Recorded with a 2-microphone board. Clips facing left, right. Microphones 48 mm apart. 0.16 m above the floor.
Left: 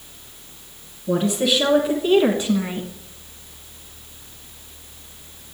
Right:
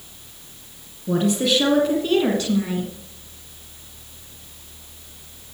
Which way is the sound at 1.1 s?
5° right (ahead or behind).